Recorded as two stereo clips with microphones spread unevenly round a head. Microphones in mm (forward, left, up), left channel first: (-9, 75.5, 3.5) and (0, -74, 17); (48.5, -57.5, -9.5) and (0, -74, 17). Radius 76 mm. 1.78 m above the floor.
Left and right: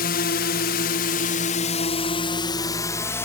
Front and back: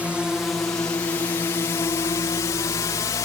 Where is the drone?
110° left; by 3.3 s 20° left.